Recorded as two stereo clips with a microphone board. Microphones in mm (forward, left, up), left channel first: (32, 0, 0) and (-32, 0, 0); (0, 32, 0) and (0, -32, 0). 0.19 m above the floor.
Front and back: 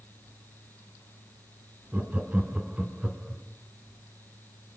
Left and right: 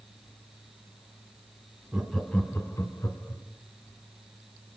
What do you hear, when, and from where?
1.9 s laughter: 160° right, 1.1 m; by 3.4 s 100° left, 2 m